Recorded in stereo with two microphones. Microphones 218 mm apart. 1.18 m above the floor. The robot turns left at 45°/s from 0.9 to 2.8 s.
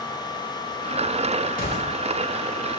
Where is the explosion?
40° left (ahead or behind), 1.3 m; by 1.9 s 55° left (ahead or behind), 1.3 m.